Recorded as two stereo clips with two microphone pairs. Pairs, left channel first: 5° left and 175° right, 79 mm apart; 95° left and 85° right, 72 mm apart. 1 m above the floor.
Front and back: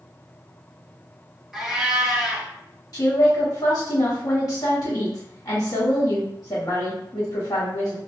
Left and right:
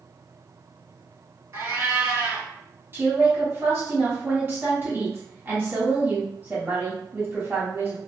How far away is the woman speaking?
About 1.4 m.